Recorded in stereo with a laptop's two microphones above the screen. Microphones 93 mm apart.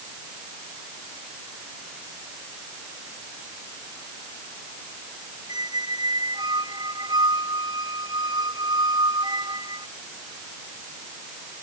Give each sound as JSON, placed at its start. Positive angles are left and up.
{"t": 5.5, "sound": "a squeak", "side_deg": -50}